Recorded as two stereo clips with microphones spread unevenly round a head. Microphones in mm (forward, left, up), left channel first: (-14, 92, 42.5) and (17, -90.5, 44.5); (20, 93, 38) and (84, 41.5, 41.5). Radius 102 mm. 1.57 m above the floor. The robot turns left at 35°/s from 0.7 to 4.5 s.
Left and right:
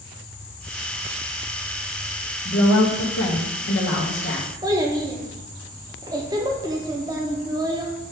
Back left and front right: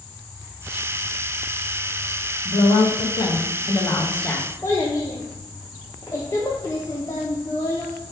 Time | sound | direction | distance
2.5 | a woman speaking | 130° left | 1.2 m
4.6 | a child speaking | 145° right | 0.8 m